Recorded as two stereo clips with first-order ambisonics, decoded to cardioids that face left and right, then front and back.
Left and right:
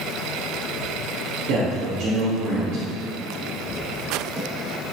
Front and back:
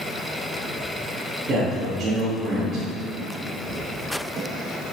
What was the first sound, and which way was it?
A man speaking, 125° right.